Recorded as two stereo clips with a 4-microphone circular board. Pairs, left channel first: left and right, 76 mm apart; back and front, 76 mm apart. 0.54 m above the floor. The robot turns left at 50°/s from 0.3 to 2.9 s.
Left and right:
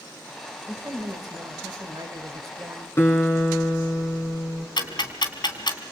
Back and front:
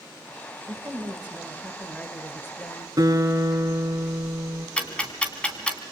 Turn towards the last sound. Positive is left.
turn(degrees=105)